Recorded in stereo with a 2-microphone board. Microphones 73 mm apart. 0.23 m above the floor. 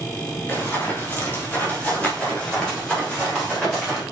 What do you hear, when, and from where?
0.5 s running footsteps: 30° left (ahead or behind), 5 m; by 4.0 s 5° left (ahead or behind), 6.5 m